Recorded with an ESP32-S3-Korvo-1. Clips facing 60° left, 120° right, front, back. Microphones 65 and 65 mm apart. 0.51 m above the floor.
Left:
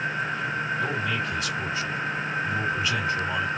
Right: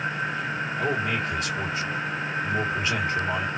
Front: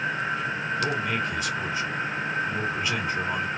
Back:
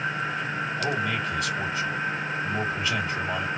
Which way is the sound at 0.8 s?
70° right.